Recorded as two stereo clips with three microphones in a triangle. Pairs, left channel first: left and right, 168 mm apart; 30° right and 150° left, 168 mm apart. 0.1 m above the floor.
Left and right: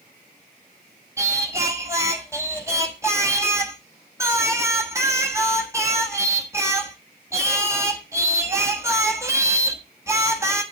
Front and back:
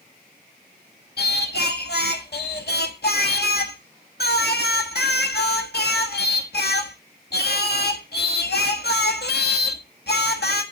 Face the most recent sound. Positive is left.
turn(degrees=-15)